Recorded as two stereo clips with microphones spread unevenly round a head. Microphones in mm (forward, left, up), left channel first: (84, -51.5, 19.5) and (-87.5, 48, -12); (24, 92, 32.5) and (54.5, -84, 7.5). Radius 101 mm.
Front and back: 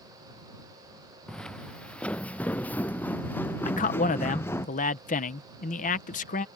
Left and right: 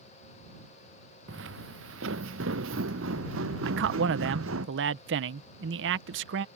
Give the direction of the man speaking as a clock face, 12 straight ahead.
3 o'clock.